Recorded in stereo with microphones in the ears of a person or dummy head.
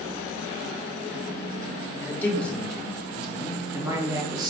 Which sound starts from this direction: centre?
A man speaking, at 2.0 s.